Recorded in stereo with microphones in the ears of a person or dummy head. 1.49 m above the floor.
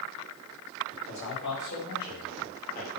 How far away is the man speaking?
About 4 m.